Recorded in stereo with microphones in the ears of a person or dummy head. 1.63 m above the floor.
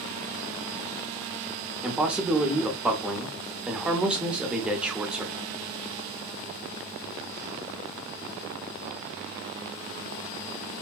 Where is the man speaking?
Centre (ahead or behind), 0.7 m.